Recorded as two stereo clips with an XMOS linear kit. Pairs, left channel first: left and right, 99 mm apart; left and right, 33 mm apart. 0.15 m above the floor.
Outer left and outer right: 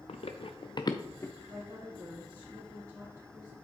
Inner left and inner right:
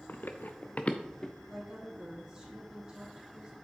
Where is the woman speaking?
35° right (ahead or behind), 3.5 m.